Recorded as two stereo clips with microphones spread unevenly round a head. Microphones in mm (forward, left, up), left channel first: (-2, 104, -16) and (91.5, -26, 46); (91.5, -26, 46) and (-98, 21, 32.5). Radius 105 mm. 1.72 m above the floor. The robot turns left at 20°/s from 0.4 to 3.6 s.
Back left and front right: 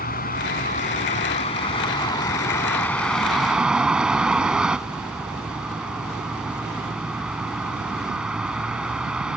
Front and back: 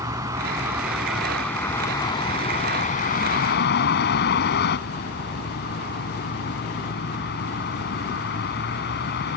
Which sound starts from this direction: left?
A vehicle, at 0.0 s.